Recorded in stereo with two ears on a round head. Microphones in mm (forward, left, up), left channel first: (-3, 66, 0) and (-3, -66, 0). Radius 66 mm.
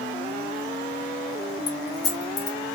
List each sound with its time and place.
1.7 s keys jangling: 25° left (ahead or behind), 1.1 m